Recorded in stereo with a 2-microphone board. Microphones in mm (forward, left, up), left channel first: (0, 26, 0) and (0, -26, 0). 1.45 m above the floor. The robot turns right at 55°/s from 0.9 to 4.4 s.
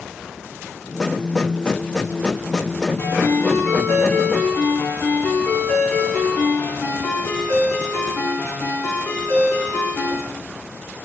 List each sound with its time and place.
3.0 s a ringtone: 50° left, 8.5 m; by 10.2 s 125° left, 8.5 m